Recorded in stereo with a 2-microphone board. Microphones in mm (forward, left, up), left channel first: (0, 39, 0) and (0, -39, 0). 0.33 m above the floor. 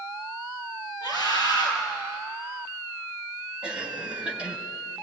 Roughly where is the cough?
Centre.